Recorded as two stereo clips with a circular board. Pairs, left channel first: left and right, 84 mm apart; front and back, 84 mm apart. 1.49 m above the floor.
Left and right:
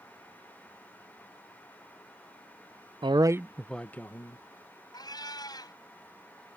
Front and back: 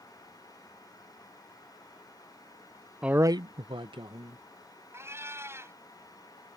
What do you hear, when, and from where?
3.0 s a man speaking: 100° right; by 4.4 s 150° left
4.9 s a cat meowing: 120° left